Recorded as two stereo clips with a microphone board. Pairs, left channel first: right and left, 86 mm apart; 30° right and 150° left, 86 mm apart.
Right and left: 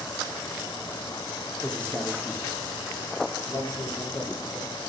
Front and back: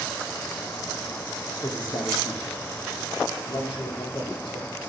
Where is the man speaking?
5° right, 2.5 m; by 4.9 s 50° right, 4 m.